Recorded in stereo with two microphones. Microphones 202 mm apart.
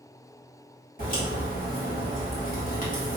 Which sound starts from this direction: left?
A crack, at 1.0 s.